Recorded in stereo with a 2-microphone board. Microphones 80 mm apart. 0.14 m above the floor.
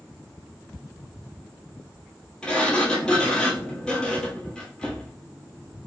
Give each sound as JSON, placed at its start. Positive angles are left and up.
{"t": 2.4, "sound": "a sliding door", "side_deg": 10, "distance_m": 0.9}